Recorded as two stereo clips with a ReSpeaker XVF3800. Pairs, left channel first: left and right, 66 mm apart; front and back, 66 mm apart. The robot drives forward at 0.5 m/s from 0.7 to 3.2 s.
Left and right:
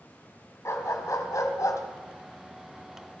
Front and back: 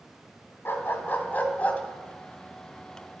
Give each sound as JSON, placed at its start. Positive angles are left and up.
{"t": 0.7, "sound": "a dog barking", "azimuth_deg": 50, "distance_m": 1.9}